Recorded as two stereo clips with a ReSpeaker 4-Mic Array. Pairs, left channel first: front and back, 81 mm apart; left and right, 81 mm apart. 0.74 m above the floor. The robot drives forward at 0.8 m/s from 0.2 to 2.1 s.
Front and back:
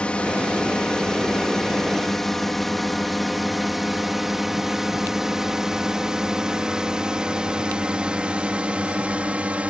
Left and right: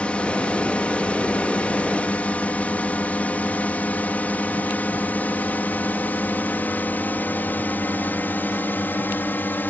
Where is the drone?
45° left; by 9.7 s 125° left.